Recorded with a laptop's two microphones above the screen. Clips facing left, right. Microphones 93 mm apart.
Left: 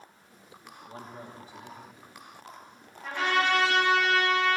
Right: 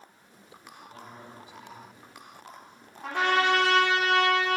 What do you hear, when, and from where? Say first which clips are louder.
0.9 s a man speaking: left 4 dB; 40° left (ahead or behind), 2 m
3.0 s a trumpet: right 2 dB; 80° right, 2.5 m